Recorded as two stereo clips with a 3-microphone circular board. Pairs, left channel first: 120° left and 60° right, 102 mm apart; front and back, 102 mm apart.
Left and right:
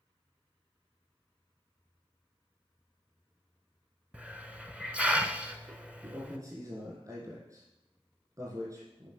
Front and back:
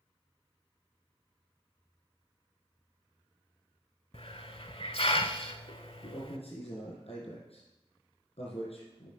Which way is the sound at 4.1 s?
20° left.